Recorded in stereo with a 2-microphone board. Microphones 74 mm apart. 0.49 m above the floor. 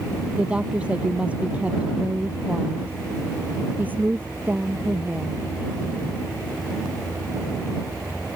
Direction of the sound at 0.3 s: 15° right (ahead or behind).